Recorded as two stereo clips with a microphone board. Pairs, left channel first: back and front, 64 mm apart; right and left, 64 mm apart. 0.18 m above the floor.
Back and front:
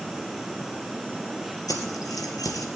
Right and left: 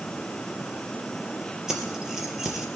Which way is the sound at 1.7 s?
170° left.